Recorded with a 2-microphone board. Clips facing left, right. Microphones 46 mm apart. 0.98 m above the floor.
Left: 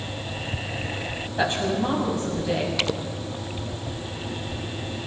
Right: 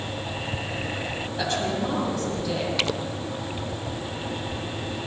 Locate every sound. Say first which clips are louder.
1.4 s a woman speaking: left 3 dB; 25° left (ahead or behind), 7 m